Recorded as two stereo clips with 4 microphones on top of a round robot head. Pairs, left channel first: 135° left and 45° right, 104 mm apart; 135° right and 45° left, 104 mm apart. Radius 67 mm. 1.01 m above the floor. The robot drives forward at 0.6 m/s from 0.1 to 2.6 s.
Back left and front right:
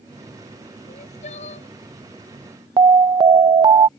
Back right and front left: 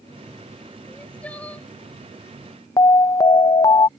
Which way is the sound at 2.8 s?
85° right.